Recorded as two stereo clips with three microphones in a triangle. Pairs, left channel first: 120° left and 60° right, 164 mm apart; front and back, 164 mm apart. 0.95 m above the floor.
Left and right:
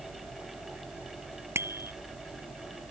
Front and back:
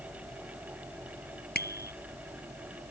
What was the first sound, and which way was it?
A bicycle bell, 15° left.